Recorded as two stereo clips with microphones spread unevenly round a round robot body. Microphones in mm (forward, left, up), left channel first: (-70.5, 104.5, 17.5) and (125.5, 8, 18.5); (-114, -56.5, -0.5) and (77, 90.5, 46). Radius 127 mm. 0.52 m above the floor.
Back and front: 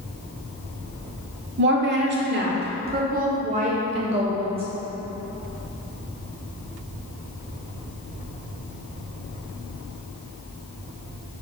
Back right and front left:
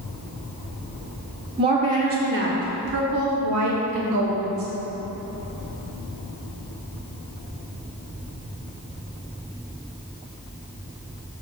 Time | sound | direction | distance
1.6 | a woman speaking | 40° right | 1.4 m